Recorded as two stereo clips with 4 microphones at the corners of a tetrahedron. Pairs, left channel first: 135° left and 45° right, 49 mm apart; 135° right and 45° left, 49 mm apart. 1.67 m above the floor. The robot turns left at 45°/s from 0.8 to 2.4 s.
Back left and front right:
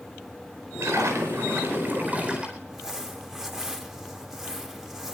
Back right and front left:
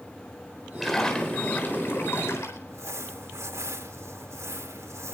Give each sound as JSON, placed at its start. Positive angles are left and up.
{"t": 0.8, "sound": "a splash", "azimuth_deg": -45, "distance_m": 4.0}
{"t": 2.7, "sound": "crumpling", "azimuth_deg": 35, "distance_m": 2.5}